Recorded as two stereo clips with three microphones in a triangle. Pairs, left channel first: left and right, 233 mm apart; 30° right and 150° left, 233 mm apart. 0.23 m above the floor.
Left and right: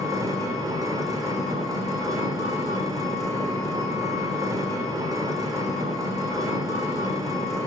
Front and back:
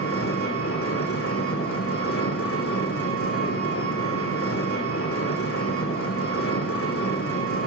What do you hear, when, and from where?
0.0 s an engine running: 15° right, 3.5 m